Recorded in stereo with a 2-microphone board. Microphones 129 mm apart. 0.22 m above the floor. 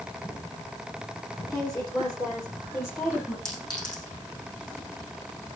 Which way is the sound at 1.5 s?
30° left (ahead or behind).